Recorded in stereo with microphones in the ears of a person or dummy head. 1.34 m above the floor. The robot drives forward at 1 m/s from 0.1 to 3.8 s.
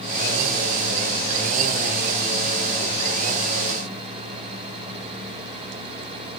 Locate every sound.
Only background noise.